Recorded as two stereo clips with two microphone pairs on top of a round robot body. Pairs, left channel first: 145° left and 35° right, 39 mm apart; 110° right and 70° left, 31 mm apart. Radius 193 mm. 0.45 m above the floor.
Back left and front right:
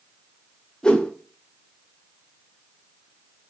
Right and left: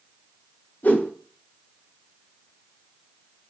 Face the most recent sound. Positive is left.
turn(degrees=-145)